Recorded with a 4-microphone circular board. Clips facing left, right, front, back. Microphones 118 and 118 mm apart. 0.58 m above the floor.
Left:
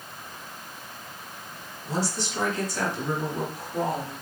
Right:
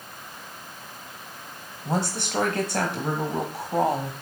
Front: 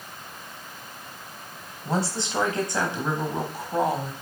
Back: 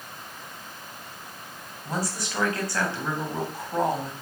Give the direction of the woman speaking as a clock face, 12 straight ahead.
2 o'clock.